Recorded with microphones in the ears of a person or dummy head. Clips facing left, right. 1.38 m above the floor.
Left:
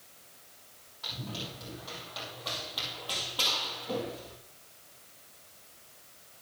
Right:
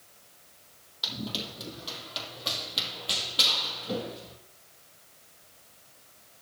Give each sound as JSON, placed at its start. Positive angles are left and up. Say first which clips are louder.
{"t": 1.0, "sound": "running footsteps", "louder": "right 4 dB", "side_deg": -45, "distance_m": 2.5}